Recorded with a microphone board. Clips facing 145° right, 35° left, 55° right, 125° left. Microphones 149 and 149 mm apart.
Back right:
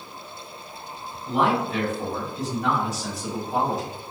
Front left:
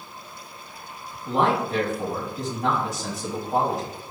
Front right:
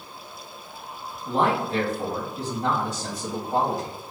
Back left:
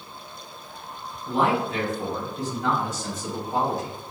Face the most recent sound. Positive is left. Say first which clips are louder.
# even, even
turn(degrees=-15)